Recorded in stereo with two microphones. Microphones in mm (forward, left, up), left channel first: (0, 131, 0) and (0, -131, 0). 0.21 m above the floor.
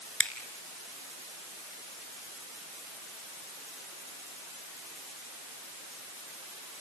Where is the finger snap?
50° left (ahead or behind), 2.0 m.